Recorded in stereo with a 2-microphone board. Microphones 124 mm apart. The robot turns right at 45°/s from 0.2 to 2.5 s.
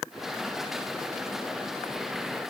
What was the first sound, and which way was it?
Only background noise.